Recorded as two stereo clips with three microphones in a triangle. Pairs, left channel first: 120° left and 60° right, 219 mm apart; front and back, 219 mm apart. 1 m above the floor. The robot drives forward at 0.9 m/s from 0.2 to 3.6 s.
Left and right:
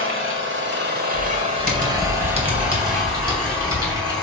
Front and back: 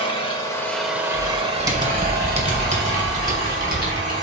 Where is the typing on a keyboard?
95° right, 2 m; by 4.1 s 135° right, 3.5 m.